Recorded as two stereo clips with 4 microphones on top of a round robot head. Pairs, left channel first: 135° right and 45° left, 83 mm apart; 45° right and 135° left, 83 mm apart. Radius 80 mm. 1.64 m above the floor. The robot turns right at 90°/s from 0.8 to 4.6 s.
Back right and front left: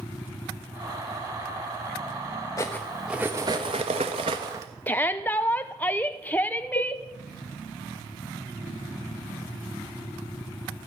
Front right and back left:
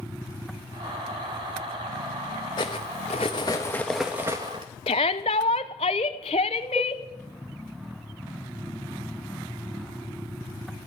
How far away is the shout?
About 0.7 m.